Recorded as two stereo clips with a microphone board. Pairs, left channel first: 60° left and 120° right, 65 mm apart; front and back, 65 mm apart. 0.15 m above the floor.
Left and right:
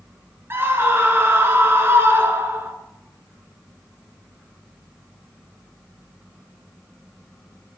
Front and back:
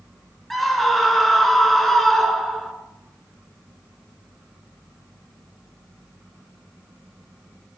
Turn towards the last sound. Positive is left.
turn(degrees=-85)